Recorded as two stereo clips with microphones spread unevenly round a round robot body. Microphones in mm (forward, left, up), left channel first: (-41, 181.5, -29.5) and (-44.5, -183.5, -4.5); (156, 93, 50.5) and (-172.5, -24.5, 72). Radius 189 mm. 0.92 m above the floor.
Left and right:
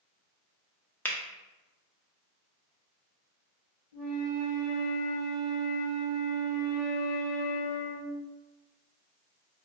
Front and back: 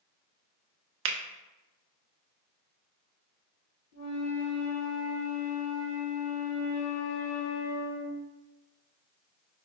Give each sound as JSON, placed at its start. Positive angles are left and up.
{"t": 1.1, "sound": "a finger snap", "azimuth_deg": 165, "distance_m": 0.6}
{"t": 3.9, "sound": "a flute", "azimuth_deg": 55, "distance_m": 1.6}